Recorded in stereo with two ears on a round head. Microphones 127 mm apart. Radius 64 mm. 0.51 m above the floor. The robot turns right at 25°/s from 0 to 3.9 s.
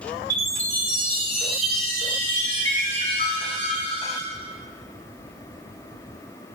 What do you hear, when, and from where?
0.3 s a chime: 35° right, 3 m; by 4.2 s 55° left, 3 m